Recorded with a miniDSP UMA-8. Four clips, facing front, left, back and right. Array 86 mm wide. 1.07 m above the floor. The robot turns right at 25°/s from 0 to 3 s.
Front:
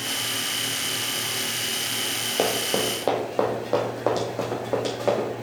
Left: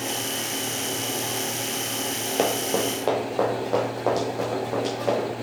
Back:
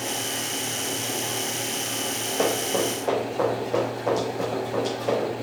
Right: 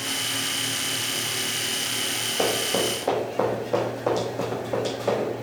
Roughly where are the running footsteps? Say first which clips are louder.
Left 1 dB, even; ahead left.